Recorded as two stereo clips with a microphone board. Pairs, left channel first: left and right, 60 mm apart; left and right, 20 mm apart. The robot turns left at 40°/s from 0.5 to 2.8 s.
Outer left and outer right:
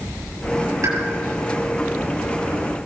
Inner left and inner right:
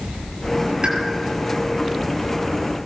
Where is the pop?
70° right (ahead or behind), 6.5 m; by 1.0 s 75° right (ahead or behind), 6.5 m.